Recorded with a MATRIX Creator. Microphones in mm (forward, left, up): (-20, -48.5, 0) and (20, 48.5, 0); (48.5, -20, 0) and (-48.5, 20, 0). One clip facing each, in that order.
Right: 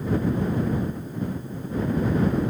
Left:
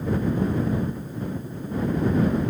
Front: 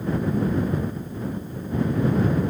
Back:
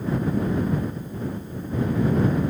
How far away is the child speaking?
I don't hear a child speaking.